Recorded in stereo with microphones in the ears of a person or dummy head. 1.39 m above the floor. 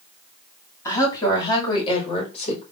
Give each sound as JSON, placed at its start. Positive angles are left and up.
{"t": 0.8, "sound": "a woman speaking", "side_deg": 30, "distance_m": 3.0}